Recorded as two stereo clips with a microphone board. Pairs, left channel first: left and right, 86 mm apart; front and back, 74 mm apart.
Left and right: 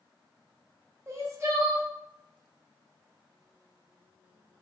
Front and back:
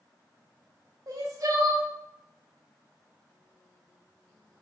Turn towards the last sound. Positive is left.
turn(degrees=-145)